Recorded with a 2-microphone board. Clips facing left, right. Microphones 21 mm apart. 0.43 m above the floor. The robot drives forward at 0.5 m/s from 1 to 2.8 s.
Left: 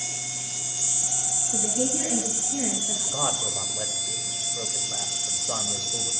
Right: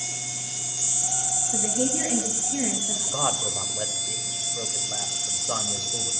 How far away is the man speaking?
About 2.5 m.